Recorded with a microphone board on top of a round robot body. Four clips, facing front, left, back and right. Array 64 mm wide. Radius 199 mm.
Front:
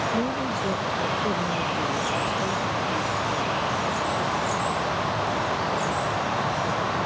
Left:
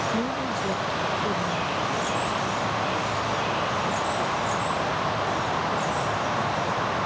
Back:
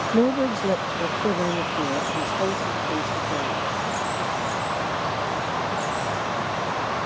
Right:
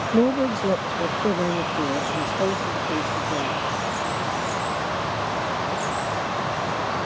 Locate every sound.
0.1 s a woman speaking: 140° right; by 3.6 s 120° right